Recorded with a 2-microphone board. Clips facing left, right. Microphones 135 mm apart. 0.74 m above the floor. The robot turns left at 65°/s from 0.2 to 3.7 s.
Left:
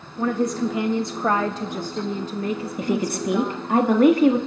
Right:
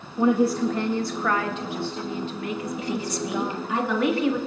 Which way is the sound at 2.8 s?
115° left.